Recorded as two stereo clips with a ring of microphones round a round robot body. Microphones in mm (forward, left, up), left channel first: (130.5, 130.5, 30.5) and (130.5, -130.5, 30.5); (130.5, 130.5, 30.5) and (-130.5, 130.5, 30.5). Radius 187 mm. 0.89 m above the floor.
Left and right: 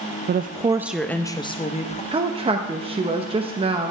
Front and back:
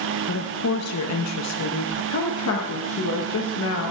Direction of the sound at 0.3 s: 40° right.